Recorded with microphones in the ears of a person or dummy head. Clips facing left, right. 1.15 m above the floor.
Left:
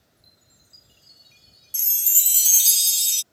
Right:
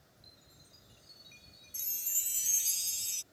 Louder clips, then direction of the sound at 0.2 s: Right 2 dB; 5° left (ahead or behind).